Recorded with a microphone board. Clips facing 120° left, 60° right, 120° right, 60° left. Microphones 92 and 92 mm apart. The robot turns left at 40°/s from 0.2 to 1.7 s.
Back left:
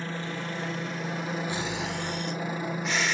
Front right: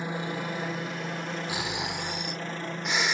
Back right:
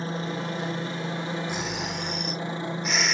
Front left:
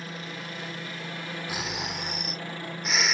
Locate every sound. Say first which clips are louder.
0.0 s a helicopter: front right 2 dB, back right 8 dB; 120° right; by 3.1 s 165° right
1.5 s snoring: back left 1 dB, back right 3 dB; 15° right; by 3.1 s 20° right